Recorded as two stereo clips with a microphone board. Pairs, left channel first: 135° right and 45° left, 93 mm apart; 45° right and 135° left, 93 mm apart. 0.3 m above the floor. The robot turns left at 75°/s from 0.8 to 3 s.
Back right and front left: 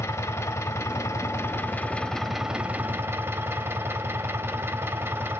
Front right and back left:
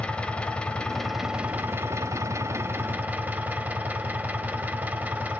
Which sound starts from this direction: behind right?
An engine running, at 0.0 s.